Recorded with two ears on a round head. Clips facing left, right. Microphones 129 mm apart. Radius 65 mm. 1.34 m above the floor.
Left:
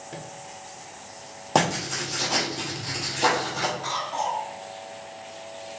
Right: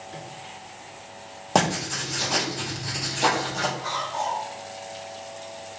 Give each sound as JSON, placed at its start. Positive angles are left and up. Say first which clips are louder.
{"t": 0.1, "sound": "a microwave", "louder": "left 2 dB", "side_deg": 55, "distance_m": 0.7}
{"t": 1.6, "sound": "writing", "louder": "even", "side_deg": 0, "distance_m": 0.9}
{"t": 3.8, "sound": "a cough", "louder": "even", "side_deg": 65, "distance_m": 1.7}